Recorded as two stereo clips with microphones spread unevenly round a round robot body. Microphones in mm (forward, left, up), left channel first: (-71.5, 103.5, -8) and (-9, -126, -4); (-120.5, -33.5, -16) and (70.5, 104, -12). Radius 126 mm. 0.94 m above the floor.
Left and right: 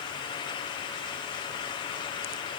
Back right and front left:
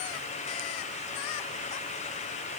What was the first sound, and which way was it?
Only background noise.